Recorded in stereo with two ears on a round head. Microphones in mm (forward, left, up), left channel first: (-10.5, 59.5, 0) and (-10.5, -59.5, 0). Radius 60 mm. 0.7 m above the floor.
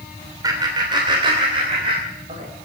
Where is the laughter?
30° right (ahead or behind), 2.5 m; by 2.5 s 50° right (ahead or behind), 4 m.